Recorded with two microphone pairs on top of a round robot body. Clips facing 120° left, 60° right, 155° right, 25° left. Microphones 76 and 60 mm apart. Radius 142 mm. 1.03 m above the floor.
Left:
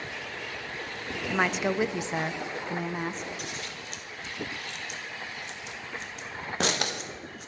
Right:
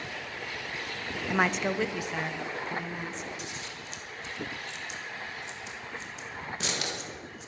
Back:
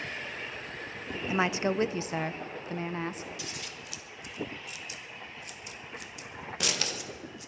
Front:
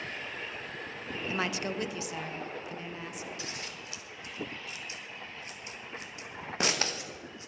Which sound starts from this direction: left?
Scissors, at 3.4 s.